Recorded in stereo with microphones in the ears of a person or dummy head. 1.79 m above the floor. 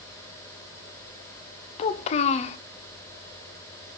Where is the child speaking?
40° left (ahead or behind), 0.8 m.